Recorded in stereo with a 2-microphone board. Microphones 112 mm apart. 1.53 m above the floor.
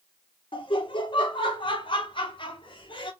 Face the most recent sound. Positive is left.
turn(degrees=50)  # may be behind; listen again after turning